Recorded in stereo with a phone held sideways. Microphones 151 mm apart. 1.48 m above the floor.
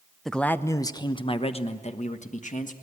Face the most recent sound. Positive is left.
turn(degrees=60)  # may be behind; listen again after turning